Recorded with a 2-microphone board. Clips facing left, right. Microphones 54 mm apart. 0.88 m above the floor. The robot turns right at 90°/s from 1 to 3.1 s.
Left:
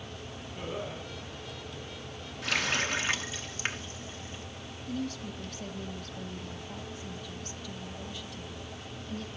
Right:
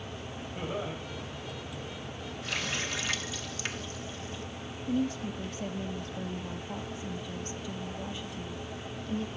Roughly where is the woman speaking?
Right.